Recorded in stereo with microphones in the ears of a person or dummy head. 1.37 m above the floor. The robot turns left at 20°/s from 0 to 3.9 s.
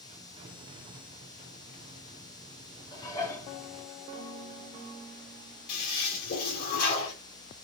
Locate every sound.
2.9 s dishes clattering: 20° left (ahead or behind), 1.6 m; by 3.5 s 10° left (ahead or behind), 1.6 m
5.7 s a toilet flushing: 45° left (ahead or behind), 3 m